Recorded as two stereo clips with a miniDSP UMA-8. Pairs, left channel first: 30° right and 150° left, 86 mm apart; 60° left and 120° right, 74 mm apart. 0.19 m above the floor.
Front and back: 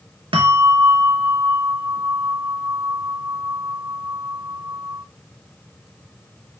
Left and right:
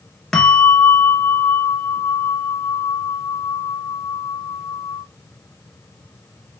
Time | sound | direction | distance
0.3 | a bell | 145° left | 0.7 m